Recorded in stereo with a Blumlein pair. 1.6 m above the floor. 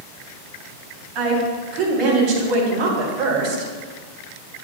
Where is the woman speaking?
40° right, 4 m.